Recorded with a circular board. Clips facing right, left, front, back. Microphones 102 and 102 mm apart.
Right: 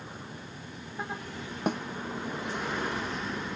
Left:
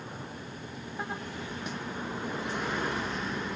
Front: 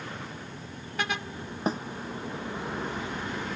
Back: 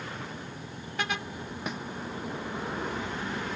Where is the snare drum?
55° right.